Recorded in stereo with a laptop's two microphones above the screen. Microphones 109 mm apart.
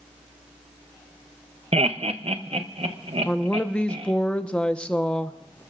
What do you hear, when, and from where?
1.7 s laughter: 70° right (ahead or behind), 0.7 m; by 4.1 s 65° right (ahead or behind), 2 m
3.2 s a woman speaking: 10° left (ahead or behind), 1.1 m